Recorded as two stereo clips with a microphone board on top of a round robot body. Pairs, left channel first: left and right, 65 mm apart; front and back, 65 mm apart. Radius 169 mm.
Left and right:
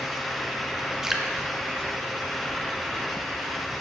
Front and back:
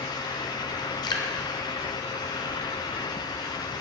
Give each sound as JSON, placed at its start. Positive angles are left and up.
{"t": 1.0, "sound": "dripping", "azimuth_deg": -5, "distance_m": 0.6}